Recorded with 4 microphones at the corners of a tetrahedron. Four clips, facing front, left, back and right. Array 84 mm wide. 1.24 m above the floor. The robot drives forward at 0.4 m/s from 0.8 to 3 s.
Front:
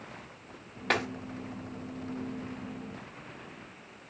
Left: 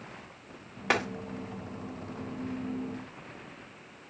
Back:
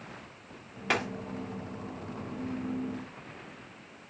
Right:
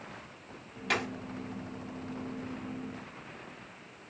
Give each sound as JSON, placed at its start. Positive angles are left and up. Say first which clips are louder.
{"t": 0.9, "sound": "a dropped coin", "louder": "left 4 dB, front 1 dB", "azimuth_deg": 70, "distance_m": 1.1}